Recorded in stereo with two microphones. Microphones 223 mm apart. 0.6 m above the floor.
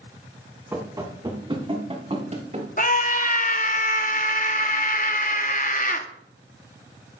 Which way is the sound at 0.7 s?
10° right (ahead or behind).